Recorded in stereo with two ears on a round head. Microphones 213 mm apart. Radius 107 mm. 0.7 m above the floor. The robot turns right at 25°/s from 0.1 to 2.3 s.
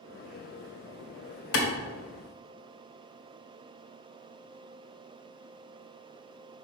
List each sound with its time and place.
1.5 s a clap: 65° left (ahead or behind), 1.8 m